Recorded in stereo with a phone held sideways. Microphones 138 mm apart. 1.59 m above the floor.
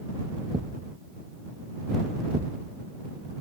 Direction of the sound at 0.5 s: 35° right (ahead or behind).